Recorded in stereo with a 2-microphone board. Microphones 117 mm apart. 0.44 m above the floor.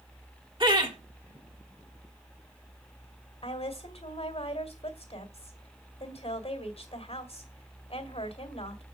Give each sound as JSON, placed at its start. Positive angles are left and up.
{"t": 0.6, "sound": "laughter", "side_deg": -40, "distance_m": 1.6}
{"t": 3.4, "sound": "a woman speaking", "side_deg": 60, "distance_m": 2.0}